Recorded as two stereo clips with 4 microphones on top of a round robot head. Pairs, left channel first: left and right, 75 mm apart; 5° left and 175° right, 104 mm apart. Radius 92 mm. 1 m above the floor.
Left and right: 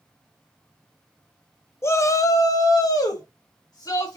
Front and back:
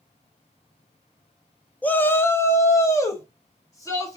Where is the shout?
70° left, 0.7 m; by 4.2 s 60° left, 2.5 m.